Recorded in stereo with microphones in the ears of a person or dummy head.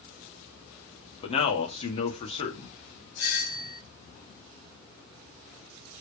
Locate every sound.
1.2 s a man speaking: 30° left (ahead or behind), 2.0 m
3.2 s a doorbell: 70° left (ahead or behind), 2.5 m